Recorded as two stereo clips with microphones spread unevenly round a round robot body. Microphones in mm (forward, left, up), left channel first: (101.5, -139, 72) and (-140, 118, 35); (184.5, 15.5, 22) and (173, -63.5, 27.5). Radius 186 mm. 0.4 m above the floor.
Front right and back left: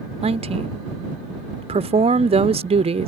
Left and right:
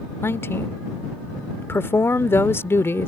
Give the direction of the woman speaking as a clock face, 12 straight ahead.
9 o'clock.